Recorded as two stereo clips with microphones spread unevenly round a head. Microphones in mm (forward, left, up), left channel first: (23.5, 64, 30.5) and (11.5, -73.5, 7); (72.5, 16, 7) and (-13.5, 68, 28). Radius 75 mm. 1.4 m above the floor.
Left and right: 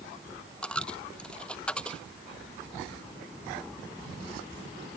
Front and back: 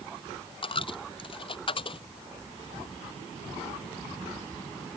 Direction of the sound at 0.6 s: 5° left.